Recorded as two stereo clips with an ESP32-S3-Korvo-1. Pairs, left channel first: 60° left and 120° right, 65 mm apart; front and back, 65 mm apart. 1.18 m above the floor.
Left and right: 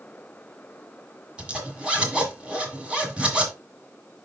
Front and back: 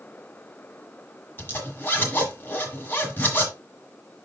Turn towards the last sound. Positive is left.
turn(degrees=-50)